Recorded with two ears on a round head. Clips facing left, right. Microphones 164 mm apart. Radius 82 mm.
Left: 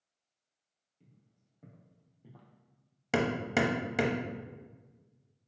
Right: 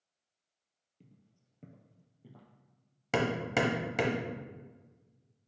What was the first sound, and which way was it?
Footsteps, 55° right (ahead or behind).